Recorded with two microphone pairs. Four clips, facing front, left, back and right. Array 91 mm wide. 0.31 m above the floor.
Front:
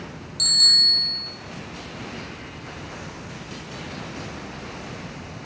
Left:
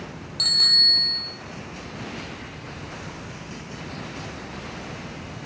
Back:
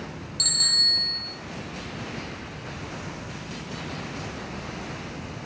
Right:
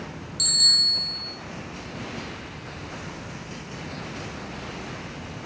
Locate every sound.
0.4 s a bicycle bell: 95° left, 7 m